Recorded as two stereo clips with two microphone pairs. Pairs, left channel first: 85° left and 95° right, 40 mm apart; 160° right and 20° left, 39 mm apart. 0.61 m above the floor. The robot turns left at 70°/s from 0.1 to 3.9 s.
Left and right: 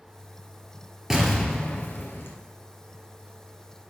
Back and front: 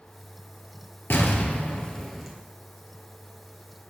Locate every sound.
1.1 s an explosion: 175° right, 1.8 m; by 2.3 s 100° left, 1.8 m